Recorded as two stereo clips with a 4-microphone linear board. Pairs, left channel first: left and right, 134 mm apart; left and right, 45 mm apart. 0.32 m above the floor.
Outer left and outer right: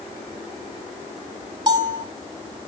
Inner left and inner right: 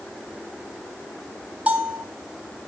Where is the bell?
30° right (ahead or behind), 1.7 m.